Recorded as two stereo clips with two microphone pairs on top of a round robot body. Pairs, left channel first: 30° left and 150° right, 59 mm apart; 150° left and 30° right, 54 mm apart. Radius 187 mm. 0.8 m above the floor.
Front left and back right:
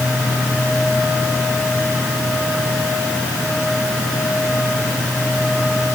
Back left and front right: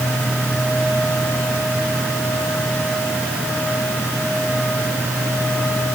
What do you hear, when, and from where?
Only background noise.